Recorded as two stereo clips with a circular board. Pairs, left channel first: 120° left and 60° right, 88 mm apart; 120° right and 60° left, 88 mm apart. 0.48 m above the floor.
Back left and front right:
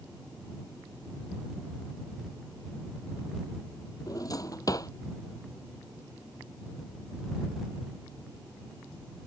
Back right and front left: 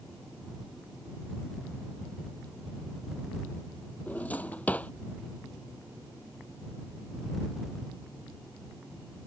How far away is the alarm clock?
No alarm clock in this recording.